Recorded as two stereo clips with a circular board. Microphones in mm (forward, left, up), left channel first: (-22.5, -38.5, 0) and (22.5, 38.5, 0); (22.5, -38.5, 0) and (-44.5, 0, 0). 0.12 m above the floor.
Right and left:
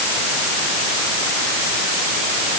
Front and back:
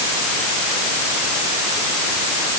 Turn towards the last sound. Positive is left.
No sound to turn to.